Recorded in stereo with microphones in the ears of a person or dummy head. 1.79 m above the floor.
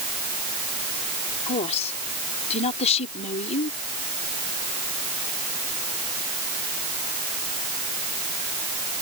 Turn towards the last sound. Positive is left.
turn(degrees=30)  # may be behind; listen again after turning